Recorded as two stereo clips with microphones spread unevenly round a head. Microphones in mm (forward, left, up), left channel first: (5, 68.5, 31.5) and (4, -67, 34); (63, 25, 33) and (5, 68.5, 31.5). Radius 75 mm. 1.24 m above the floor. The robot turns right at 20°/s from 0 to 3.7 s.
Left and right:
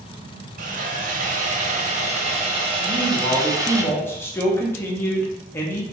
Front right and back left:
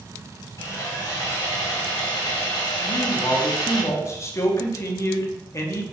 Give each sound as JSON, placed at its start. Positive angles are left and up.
{"t": 0.6, "sound": "sawing", "azimuth_deg": -85, "distance_m": 0.8}
{"t": 2.8, "sound": "a man speaking", "azimuth_deg": -5, "distance_m": 0.8}